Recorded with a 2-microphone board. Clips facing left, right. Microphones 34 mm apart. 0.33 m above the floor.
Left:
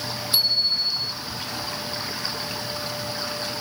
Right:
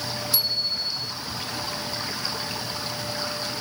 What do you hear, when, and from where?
0.3 s a bicycle bell: 35° left (ahead or behind)